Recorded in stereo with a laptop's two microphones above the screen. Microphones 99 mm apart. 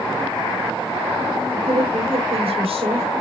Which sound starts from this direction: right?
A woman speaking, at 1.6 s.